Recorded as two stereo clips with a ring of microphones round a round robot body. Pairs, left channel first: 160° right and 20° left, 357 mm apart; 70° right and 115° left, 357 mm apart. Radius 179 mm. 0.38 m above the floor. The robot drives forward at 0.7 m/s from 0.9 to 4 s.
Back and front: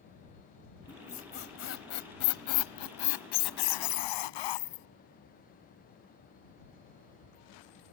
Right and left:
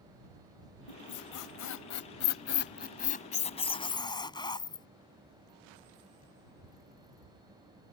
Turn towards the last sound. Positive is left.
turn(degrees=-145)